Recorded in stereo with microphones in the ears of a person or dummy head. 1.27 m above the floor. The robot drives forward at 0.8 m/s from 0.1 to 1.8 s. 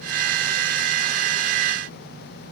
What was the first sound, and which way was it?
Only background noise.